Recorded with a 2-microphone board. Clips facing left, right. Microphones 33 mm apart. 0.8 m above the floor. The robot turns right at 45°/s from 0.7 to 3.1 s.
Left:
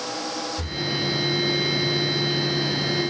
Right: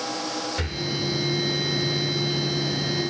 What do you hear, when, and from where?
0.6 s breathing: 70° right (ahead or behind), 2.5 m; by 0.9 s 65° right (ahead or behind), 2.5 m